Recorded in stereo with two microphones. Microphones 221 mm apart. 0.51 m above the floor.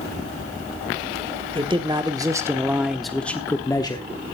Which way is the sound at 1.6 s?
20° right (ahead or behind).